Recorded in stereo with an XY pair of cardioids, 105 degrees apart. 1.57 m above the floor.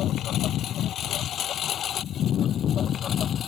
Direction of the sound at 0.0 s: 70° left.